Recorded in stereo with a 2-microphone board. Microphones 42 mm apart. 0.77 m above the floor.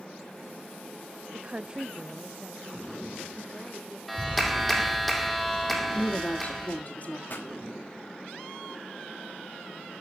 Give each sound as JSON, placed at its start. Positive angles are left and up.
{"t": 1.3, "sound": "a woman speaking", "side_deg": -30, "distance_m": 0.5}
{"t": 4.1, "sound": "a clap", "side_deg": 0, "distance_m": 2.0}
{"t": 5.9, "sound": "a woman speaking", "side_deg": 35, "distance_m": 1.9}
{"t": 7.3, "sound": "a pop", "side_deg": 45, "distance_m": 3.5}